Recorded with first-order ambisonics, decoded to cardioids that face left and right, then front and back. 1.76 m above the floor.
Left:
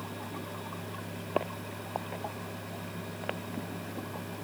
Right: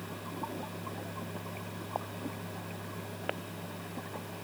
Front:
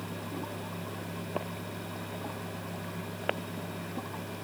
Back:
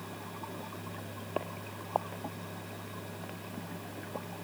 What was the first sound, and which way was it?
Only background noise.